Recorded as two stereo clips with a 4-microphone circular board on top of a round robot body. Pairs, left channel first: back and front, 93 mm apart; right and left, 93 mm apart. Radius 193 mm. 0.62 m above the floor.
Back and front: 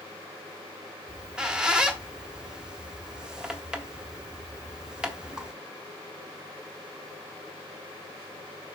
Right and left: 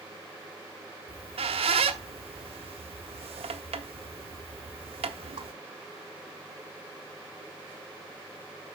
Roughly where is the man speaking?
I don't hear a man speaking.